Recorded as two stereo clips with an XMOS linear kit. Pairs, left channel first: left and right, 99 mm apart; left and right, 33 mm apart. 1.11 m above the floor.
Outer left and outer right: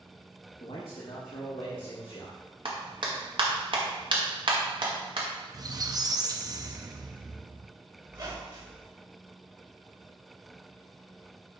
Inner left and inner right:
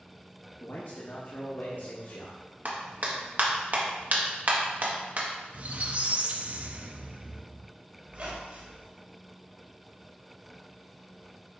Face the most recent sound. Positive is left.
turn(degrees=-45)  # may be behind; listen again after turning